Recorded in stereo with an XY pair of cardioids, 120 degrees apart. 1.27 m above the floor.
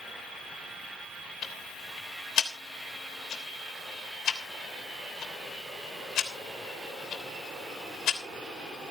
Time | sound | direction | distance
1.4 | ticking | 60° left | 3 m